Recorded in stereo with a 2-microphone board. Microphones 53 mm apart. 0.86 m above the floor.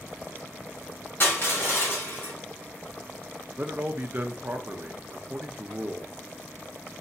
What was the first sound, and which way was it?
Crushing, 50° left (ahead or behind).